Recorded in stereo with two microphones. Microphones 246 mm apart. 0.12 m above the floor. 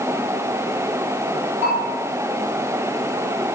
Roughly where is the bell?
Right.